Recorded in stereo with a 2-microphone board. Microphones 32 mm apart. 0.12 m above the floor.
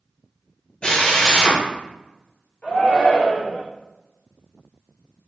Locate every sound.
0.8 s a drill: 35° left (ahead or behind), 0.9 m
2.6 s a shout: 50° left (ahead or behind), 1.8 m